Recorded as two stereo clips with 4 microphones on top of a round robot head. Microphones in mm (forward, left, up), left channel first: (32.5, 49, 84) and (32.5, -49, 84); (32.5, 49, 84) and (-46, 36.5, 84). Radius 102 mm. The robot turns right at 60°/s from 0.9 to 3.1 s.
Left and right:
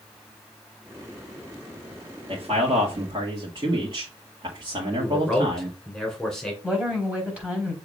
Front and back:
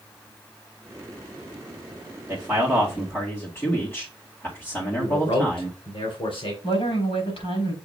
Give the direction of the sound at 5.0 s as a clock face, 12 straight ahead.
12 o'clock.